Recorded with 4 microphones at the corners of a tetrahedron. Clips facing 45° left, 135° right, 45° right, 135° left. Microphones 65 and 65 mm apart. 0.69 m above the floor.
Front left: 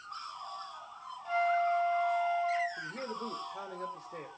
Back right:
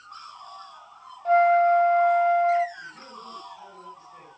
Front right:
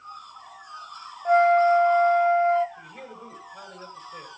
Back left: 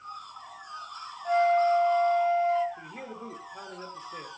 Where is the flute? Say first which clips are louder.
Back right 11 dB, front right 5 dB; 95° right, 0.5 m.